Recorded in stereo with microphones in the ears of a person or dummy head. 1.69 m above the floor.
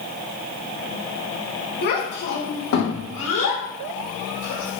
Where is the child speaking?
50° left (ahead or behind), 2 m; by 4.8 s 85° left, 6 m.